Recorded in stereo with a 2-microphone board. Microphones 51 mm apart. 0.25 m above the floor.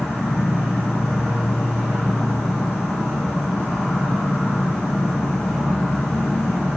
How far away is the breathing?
No breathing in this recording.